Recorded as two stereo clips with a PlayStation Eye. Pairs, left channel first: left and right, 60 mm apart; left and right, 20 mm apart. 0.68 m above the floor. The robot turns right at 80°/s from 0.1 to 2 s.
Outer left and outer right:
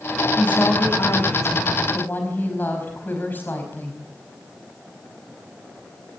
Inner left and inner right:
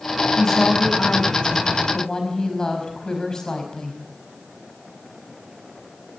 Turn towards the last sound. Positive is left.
turn(degrees=145)